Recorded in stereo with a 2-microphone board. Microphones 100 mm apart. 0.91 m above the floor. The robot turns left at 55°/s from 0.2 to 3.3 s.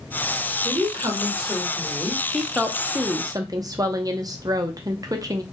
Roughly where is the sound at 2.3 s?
Ahead.